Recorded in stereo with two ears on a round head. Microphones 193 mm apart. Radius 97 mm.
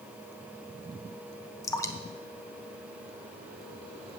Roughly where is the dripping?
Centre.